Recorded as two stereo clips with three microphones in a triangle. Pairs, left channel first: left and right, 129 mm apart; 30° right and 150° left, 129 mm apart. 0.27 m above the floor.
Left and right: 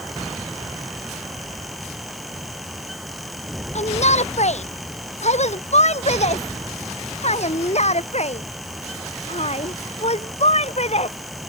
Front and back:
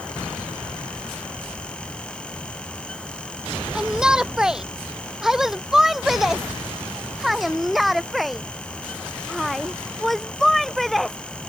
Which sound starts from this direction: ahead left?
A shout, at 3.8 s.